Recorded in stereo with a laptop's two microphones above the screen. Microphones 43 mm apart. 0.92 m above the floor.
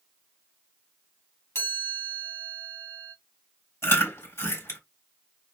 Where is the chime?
75° left (ahead or behind), 1.9 m.